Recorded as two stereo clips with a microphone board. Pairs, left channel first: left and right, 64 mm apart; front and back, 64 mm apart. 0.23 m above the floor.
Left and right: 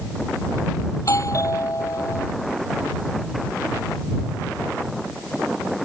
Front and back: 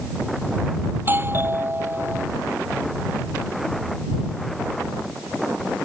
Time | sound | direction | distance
0.9 | a doorbell | 125° left | ?